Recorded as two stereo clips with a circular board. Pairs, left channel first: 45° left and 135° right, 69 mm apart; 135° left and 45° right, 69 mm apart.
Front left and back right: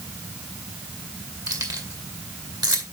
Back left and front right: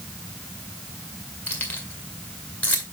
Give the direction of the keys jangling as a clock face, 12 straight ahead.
5 o'clock.